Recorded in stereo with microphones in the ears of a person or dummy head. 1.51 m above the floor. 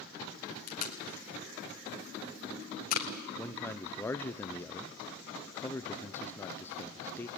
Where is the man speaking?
15° left (ahead or behind), 0.6 m.